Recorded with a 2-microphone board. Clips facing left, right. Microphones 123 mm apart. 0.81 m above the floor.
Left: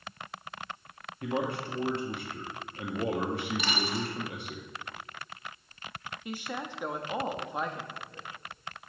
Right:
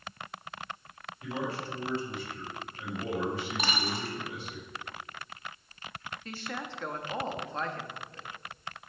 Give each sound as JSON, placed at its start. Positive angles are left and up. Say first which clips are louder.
{"t": 1.2, "sound": "a man speaking", "louder": "left 3 dB", "side_deg": 60, "distance_m": 1.3}
{"t": 3.6, "sound": "a dropped coin", "louder": "left 1 dB", "side_deg": -45, "distance_m": 1.3}
{"t": 6.2, "sound": "a woman speaking", "louder": "left 3 dB", "side_deg": 15, "distance_m": 0.8}